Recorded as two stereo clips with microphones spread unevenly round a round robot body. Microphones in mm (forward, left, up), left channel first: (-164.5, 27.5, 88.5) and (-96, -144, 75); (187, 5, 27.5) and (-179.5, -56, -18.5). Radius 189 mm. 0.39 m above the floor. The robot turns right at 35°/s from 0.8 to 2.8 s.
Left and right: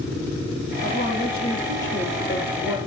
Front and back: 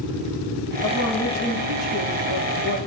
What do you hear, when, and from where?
0.8 s a woman speaking: 75° left, 9 m; by 2.8 s 145° left, 9 m